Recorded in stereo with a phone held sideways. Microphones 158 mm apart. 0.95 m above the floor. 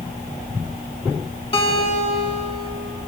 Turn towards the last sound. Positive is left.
turn(degrees=35)  # may be behind; listen again after turning